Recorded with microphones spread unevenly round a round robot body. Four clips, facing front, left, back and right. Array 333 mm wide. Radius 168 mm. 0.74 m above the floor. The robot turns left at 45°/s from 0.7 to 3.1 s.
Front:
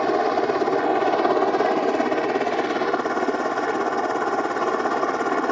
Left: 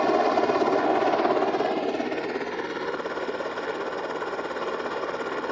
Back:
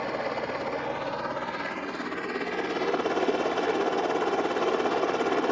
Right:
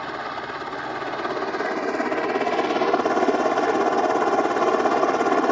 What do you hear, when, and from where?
0.0 s a helicopter: 45° left; by 5.5 s 60° right